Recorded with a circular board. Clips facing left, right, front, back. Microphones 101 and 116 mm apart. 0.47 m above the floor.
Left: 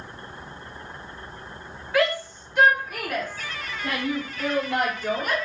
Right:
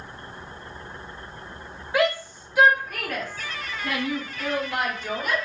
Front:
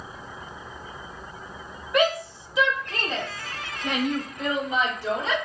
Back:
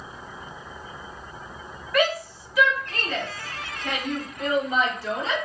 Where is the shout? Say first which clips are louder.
Even, front 1 dB; 45° right, 1.4 m; by 5.3 s 65° left, 2 m.